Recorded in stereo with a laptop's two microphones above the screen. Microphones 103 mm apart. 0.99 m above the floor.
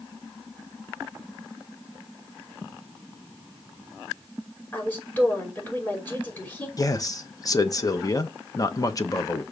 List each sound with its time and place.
4.7 s a woman speaking: 20° left (ahead or behind), 5.5 m
6.8 s a man speaking: 35° left (ahead or behind), 1.0 m